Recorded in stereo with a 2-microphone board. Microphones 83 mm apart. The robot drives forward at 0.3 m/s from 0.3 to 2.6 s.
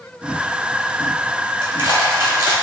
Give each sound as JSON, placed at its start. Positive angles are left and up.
{"t": 1.6, "sound": "crushing", "side_deg": -35, "distance_m": 1.8}